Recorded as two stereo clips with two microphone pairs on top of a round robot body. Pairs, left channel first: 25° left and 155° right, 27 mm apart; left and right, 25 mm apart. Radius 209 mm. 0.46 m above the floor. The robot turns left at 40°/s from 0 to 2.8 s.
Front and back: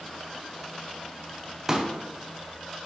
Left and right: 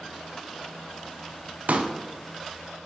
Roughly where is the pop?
Right.